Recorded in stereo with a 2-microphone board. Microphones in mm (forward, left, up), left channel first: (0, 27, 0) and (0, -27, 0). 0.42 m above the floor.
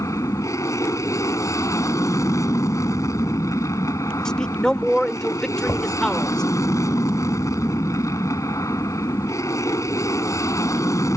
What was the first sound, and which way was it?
An aircraft, 70° left (ahead or behind).